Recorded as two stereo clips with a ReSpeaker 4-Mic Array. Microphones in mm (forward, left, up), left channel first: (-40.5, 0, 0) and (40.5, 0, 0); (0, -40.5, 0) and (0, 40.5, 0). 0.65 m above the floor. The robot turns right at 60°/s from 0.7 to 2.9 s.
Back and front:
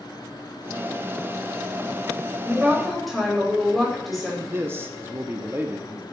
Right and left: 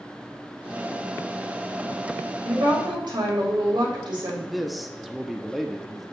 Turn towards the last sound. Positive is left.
turn(degrees=5)